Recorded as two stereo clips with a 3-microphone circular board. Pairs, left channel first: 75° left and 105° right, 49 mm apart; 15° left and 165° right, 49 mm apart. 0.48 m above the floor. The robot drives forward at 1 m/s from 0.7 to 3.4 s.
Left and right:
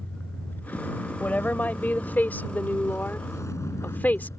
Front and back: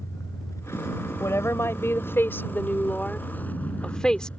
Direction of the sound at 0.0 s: 25° left.